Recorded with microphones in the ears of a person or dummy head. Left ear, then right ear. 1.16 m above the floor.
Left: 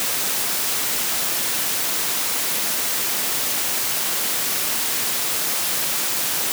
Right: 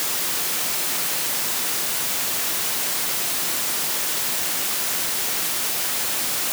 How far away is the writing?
No writing in this recording.